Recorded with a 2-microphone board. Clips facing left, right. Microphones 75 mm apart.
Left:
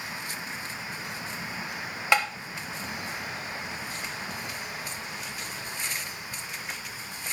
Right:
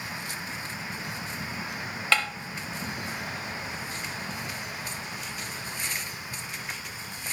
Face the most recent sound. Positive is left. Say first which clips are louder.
# left 2 dB
turn(degrees=20)  # may be behind; listen again after turning